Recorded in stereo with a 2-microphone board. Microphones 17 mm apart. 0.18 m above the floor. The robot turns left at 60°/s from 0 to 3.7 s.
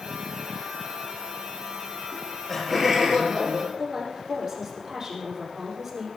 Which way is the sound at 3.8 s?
35° right (ahead or behind).